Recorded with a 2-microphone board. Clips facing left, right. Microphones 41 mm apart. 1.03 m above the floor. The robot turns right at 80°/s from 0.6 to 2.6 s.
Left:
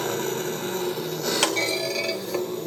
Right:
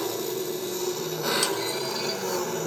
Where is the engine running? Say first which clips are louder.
Left 3 dB; 140° left, 3.5 m; by 2.7 s 60° right, 3.5 m.